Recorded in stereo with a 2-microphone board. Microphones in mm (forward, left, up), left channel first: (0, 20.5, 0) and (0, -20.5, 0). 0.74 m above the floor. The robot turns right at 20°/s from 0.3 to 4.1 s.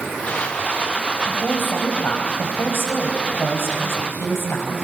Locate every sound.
1.3 s a woman speaking: 50° left, 4.5 m; by 4.7 s 105° left, 4.5 m